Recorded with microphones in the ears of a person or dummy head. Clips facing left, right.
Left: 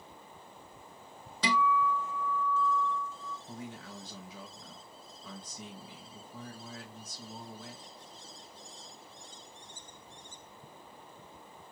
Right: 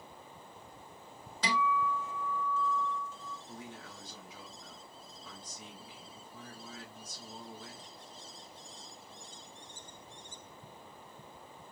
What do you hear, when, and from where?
1.4 s a guitar: 85° left, 0.7 m
3.5 s a man speaking: 60° left (ahead or behind), 1.5 m